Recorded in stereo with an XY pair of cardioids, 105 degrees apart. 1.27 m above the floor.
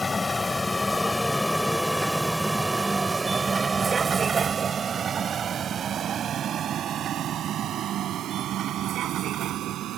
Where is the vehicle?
20° left; by 10.0 s 75° right.